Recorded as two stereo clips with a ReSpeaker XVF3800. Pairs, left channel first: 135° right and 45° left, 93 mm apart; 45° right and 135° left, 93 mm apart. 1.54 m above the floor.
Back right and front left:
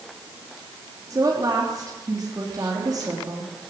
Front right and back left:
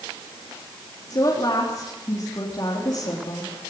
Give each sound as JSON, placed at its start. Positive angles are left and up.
{"t": 1.1, "sound": "a woman speaking", "azimuth_deg": 0, "distance_m": 3.5}